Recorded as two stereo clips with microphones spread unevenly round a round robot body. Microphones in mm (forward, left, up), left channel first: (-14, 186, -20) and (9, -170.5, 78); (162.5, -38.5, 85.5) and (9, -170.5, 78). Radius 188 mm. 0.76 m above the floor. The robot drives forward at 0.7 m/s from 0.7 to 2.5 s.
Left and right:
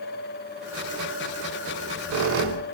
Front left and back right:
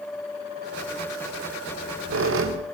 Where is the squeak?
135° right, 2.5 m; by 2.6 s 145° right, 3 m.